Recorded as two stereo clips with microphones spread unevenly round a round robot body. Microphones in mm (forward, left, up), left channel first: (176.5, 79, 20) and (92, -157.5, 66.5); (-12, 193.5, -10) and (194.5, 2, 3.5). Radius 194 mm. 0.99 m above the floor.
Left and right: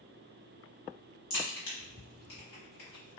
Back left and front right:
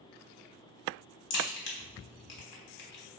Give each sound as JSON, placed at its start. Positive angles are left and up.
{"t": 1.3, "sound": "a crack", "azimuth_deg": 125, "distance_m": 1.2}